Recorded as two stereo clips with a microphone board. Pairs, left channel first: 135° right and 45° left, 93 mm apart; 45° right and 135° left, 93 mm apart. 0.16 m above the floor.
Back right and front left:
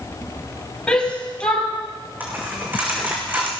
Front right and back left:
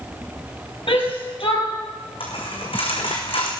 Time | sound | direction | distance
0.9 | a shout | 55° right | 4.5 m
2.2 | a dropped coin | 25° right | 4 m